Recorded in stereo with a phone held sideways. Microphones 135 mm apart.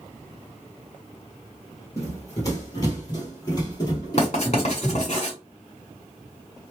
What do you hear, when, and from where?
2.0 s running footsteps: 25° left (ahead or behind), 1.5 m; by 5.2 s 30° left (ahead or behind), 2 m
4.2 s writing: 55° left (ahead or behind), 1.8 m